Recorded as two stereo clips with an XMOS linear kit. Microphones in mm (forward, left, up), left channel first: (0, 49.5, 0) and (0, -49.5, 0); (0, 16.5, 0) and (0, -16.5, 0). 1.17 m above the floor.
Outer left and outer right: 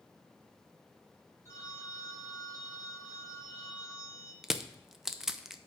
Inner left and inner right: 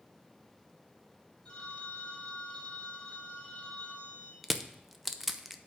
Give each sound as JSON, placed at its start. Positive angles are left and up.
{"t": 1.4, "sound": "a phone ringing", "side_deg": 30, "distance_m": 2.0}
{"t": 4.4, "sound": "crushing", "side_deg": -5, "distance_m": 0.6}